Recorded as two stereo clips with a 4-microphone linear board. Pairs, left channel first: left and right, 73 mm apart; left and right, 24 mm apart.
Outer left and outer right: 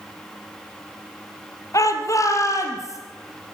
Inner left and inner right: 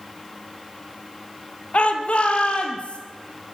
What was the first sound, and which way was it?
A shout, 50° left (ahead or behind).